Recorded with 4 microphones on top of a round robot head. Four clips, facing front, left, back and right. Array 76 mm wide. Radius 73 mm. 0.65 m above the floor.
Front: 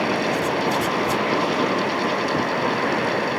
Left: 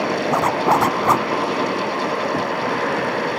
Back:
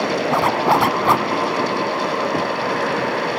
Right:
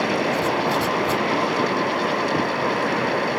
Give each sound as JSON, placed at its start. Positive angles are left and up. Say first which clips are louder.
{"t": 0.3, "sound": "a zipper", "louder": "left 4 dB, back 5 dB", "azimuth_deg": 140}